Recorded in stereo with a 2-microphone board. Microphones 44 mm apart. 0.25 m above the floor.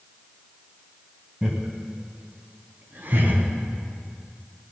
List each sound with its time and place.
1.4 s laughter: 15° right (ahead or behind), 2 m; by 3.4 s 50° right (ahead or behind), 2.5 m